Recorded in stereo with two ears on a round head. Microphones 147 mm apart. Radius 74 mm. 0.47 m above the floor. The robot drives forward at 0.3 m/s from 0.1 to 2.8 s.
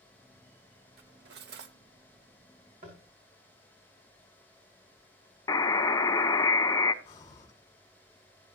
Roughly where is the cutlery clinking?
Right.